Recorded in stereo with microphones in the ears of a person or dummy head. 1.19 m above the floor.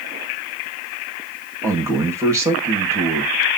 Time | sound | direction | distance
1.6 | a man speaking | 15° right (ahead or behind) | 1.4 m